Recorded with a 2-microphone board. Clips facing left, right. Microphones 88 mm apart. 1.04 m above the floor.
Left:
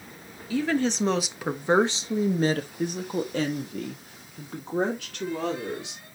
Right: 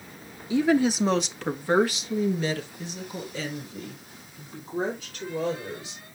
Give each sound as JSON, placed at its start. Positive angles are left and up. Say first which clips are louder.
{"t": 0.5, "sound": "a woman speaking", "louder": "right 3 dB", "side_deg": -20, "distance_m": 1.2}